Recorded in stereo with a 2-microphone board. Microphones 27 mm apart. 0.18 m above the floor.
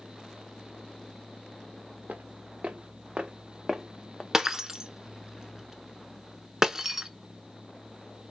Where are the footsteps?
80° right, 1.1 m; by 4.2 s 15° left (ahead or behind), 0.8 m.